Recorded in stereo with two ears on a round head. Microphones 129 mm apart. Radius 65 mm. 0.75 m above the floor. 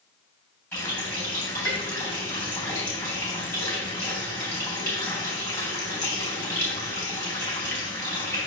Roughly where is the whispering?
No whispering in this recording.